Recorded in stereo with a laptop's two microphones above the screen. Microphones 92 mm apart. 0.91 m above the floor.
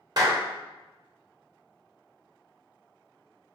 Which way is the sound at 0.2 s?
45° right (ahead or behind).